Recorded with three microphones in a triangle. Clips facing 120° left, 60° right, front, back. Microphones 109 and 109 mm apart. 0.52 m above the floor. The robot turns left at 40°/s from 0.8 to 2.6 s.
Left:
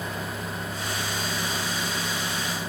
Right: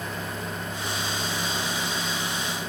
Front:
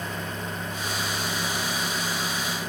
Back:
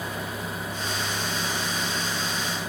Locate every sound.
Only background noise.